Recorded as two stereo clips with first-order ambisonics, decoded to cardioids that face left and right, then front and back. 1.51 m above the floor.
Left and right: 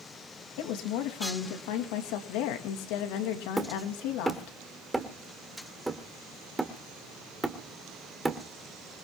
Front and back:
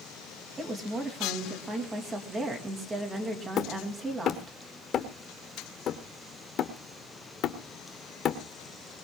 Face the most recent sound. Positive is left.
turn(degrees=-20)